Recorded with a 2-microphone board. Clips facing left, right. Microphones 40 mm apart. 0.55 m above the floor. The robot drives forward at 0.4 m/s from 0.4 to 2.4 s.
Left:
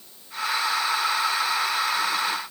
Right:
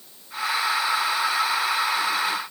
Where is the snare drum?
No snare drum in this recording.